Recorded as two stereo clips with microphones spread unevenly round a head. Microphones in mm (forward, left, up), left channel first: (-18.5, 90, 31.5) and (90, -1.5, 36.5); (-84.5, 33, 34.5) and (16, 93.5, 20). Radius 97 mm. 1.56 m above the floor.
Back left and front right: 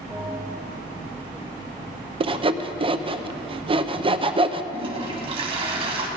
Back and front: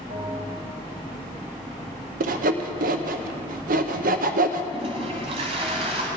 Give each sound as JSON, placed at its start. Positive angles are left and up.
{"t": 0.1, "sound": "a bell", "azimuth_deg": 30, "distance_m": 6.0}
{"t": 2.2, "sound": "sawing", "azimuth_deg": 15, "distance_m": 0.7}
{"t": 4.7, "sound": "a toilet flushing", "azimuth_deg": -15, "distance_m": 1.8}